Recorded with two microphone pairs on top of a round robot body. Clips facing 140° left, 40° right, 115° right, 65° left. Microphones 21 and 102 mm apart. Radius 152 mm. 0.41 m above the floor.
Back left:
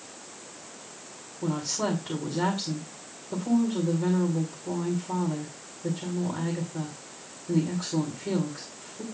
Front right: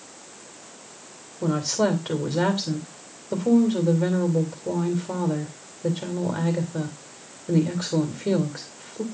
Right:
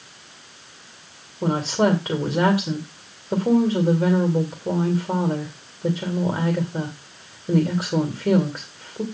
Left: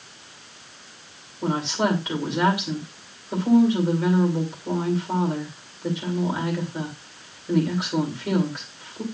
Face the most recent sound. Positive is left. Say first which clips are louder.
# front right 6 dB, right 3 dB
turn(degrees=-70)